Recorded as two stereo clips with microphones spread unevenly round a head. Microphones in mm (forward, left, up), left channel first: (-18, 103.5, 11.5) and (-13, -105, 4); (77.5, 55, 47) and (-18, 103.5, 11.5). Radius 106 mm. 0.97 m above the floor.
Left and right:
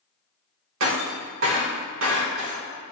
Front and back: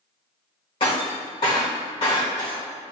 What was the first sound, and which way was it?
Breaking glass, 65° right.